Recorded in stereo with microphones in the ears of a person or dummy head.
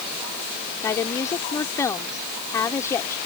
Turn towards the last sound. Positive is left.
turn(degrees=15)  # may be behind; listen again after turning